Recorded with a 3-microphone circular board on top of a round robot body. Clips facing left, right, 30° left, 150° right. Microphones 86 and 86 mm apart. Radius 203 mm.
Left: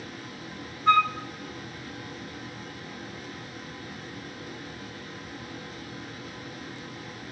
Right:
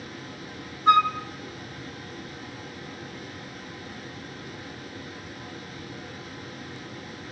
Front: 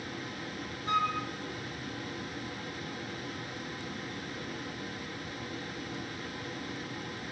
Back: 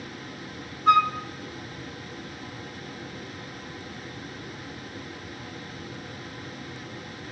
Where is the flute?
160° right, 1.1 m.